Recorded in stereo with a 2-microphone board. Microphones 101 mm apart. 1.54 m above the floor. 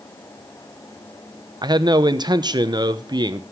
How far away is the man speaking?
About 0.9 m.